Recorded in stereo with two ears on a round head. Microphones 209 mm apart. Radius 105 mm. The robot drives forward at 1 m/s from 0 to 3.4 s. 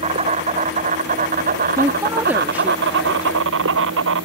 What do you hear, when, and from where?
0.0 s an insect: 30° right (ahead or behind); by 4.2 s 55° right (ahead or behind)
1.8 s a woman speaking: 15° right (ahead or behind); by 4.1 s 5° right (ahead or behind)